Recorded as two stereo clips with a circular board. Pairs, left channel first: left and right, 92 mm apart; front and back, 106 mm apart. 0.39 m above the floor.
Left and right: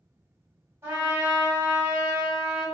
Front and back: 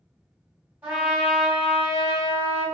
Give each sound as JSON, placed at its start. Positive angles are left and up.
{"t": 0.8, "sound": "a trumpet", "azimuth_deg": -120, "distance_m": 1.5}